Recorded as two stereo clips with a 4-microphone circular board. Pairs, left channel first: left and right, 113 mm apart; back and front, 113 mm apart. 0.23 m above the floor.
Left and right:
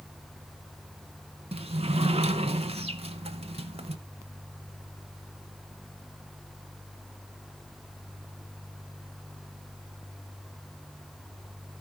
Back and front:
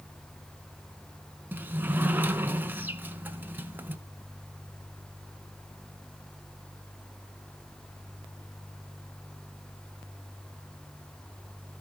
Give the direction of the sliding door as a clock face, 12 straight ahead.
2 o'clock.